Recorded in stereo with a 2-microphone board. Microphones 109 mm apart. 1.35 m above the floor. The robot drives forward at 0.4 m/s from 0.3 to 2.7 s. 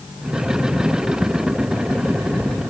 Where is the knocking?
I don't hear knocking.